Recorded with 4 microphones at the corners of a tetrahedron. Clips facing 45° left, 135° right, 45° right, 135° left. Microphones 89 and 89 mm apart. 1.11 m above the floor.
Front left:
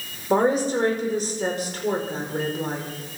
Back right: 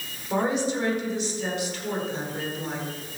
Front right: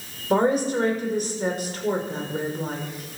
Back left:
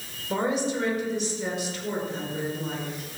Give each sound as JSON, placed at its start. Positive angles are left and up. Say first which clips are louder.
{"t": 0.3, "sound": "a woman speaking", "louder": "front left 5 dB, front right 6 dB", "azimuth_deg": 0, "distance_m": 4.5}